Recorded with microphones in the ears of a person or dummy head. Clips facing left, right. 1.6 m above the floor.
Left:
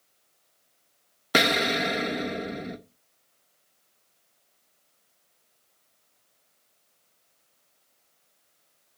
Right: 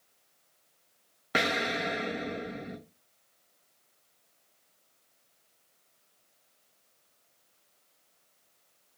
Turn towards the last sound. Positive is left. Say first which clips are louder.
# left 6 dB
turn(degrees=50)  # may be behind; listen again after turning